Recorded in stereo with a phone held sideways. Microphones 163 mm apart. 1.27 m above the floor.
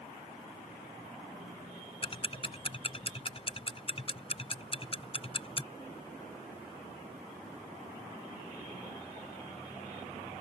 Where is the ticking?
35° left (ahead or behind).